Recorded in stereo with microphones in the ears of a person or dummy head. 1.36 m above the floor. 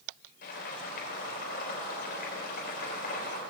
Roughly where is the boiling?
Left.